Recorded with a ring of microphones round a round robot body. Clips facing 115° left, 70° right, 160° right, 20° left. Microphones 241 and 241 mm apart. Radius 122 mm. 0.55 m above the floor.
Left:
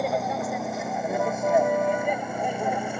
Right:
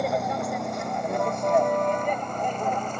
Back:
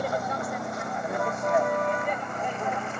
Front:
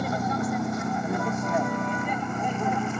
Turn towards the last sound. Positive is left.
turn(degrees=30)